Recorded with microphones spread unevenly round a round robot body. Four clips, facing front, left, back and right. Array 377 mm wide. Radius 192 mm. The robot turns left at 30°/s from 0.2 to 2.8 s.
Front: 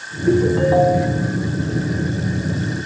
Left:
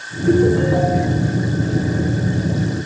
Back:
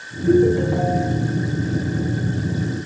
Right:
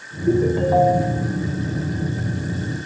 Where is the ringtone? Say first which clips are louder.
Left 3 dB, even; 30° right, 3 m; by 1.3 s 60° right, 3 m.